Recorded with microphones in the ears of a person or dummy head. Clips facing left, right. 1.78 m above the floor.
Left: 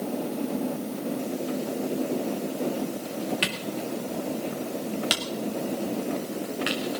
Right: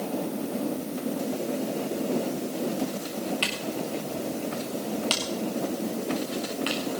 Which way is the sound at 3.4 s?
15° left (ahead or behind).